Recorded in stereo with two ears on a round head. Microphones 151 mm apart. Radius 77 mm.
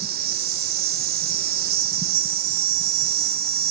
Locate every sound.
0.0 s an insect: 55° right (ahead or behind), 0.8 m